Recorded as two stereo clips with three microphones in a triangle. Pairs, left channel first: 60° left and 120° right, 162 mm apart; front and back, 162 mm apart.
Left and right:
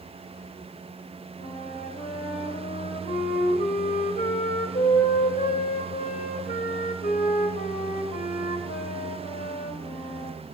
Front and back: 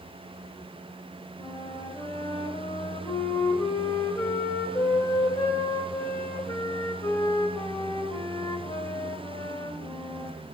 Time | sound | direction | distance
1.4 | a flute | 60° left | 1.8 m